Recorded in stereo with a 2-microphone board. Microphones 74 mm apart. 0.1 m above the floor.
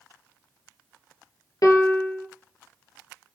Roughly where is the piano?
Left.